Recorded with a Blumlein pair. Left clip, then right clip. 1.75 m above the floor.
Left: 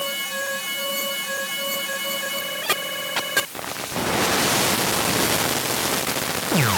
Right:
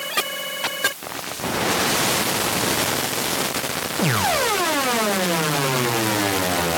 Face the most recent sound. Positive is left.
No sound to turn to.